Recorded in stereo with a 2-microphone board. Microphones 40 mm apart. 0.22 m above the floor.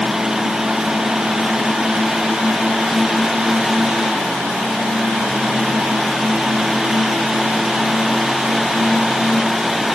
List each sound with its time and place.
Only background noise.